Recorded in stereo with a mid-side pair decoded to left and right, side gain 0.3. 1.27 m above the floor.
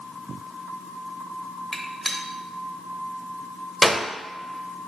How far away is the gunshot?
About 0.8 m.